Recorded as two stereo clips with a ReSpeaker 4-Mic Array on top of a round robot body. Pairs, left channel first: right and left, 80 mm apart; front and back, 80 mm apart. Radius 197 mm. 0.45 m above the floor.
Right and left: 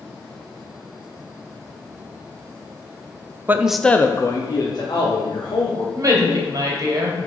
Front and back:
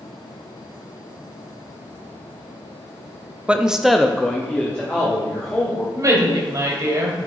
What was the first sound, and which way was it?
A man speaking, 120° left.